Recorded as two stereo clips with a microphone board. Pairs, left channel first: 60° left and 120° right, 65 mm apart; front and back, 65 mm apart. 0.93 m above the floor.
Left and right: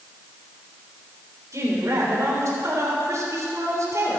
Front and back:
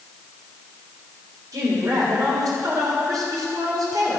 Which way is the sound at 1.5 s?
160° right.